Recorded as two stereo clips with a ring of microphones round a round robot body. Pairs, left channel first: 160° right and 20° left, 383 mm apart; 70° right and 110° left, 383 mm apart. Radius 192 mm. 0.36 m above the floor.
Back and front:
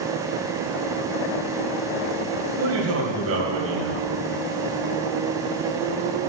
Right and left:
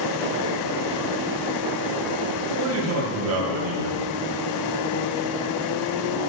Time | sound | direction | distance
2.6 | a man speaking | 70° left | 2.5 m